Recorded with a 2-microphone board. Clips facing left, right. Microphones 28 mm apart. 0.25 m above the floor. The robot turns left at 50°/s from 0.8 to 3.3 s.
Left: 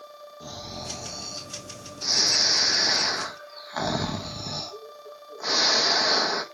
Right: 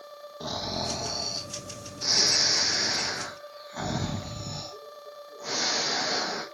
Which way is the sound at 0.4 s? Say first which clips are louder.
Right 6 dB; 115° right.